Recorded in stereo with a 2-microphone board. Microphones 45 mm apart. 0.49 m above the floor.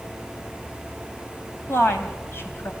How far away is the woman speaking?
About 3 m.